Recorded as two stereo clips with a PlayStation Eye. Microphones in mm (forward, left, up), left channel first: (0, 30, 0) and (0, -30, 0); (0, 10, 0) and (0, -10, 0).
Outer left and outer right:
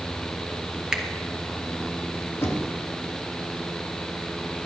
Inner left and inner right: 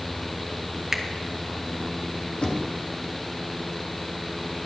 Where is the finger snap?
10° right (ahead or behind), 1.1 m.